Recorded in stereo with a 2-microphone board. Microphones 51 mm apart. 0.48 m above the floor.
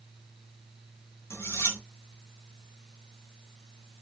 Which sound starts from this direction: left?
Cutlery clinking, at 1.3 s.